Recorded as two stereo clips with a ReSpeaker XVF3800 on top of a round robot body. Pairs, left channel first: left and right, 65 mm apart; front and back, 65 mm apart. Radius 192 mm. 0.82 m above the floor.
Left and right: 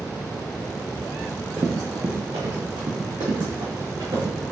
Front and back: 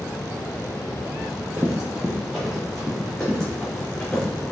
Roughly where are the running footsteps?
Behind left.